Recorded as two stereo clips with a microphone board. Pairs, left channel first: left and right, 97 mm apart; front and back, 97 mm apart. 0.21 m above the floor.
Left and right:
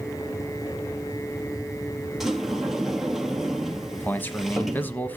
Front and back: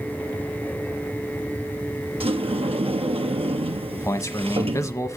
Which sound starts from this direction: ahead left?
A man speaking, at 3.9 s.